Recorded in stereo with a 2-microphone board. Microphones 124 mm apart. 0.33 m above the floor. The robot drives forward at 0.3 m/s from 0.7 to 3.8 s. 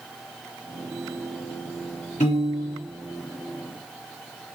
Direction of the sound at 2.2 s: 80° left.